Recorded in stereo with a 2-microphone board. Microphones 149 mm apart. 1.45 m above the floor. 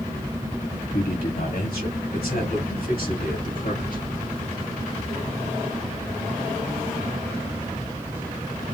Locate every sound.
0.9 s a man speaking: 85° left, 3 m; by 4.0 s 80° left, 4.5 m